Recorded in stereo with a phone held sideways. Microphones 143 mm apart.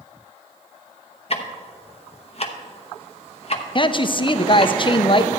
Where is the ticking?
45° left (ahead or behind), 1.0 m.